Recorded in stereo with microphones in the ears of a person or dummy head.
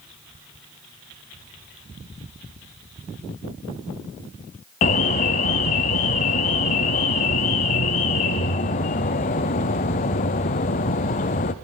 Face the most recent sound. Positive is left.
turn(degrees=30)  # may be behind; listen again after turning